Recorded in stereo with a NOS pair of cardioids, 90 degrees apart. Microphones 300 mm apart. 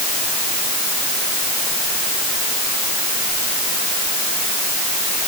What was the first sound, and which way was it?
Only background noise.